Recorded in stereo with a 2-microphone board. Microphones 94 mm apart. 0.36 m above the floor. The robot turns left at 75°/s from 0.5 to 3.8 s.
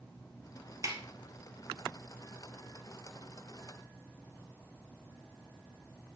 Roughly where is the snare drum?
Right.